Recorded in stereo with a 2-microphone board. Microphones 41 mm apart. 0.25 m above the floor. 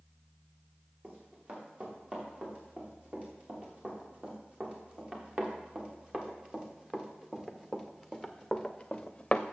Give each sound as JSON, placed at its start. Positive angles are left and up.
{"t": 1.0, "sound": "running footsteps", "side_deg": -30, "distance_m": 5.5}